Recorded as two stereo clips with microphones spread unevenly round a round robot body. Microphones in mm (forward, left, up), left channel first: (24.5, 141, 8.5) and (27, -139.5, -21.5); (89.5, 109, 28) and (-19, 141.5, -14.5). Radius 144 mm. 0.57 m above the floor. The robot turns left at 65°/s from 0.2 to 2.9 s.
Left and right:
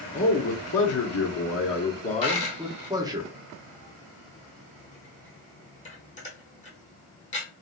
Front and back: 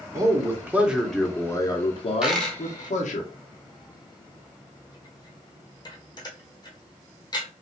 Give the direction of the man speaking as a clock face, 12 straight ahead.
7 o'clock.